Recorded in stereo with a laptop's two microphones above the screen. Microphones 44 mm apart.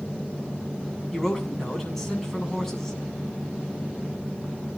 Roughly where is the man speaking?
Centre.